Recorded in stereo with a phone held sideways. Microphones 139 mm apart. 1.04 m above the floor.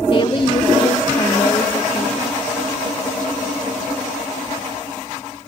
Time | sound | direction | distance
0.1 | a woman speaking | 40° left (ahead or behind) | 1.6 m